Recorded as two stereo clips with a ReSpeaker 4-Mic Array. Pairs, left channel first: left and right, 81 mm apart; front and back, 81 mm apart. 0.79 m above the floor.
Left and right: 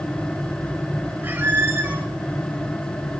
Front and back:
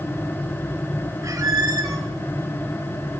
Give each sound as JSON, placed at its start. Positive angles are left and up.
{"t": 1.2, "sound": "a squeak", "azimuth_deg": -145, "distance_m": 0.7}